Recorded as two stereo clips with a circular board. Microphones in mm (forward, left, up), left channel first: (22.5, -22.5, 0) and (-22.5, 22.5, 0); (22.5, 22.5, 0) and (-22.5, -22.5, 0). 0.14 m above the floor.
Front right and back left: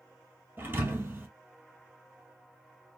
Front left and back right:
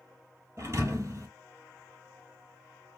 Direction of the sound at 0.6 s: 175° right.